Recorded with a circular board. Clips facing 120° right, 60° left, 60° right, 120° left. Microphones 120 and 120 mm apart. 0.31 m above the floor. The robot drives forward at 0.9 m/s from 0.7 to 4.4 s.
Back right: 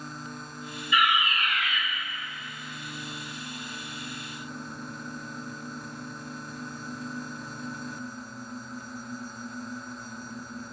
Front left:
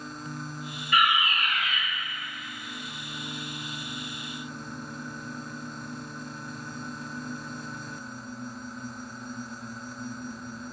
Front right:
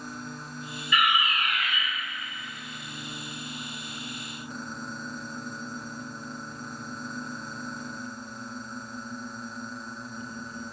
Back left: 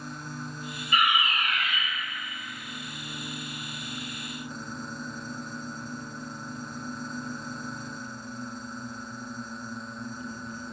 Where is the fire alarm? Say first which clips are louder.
Even, even; 80° left, 3.5 m; by 1.8 s 95° left, 3.5 m.